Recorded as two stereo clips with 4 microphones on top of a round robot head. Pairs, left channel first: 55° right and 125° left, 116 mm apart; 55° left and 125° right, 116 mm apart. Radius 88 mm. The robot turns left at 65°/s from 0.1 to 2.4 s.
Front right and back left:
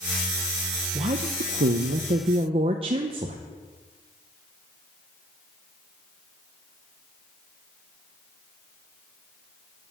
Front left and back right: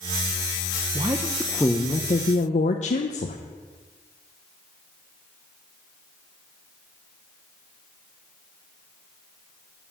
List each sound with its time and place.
0.9 s a woman speaking: 175° left, 0.6 m; by 3.4 s 80° left, 0.6 m